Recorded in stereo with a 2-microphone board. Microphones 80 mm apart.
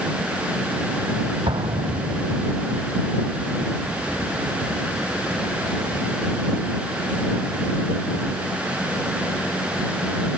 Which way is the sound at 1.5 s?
85° right.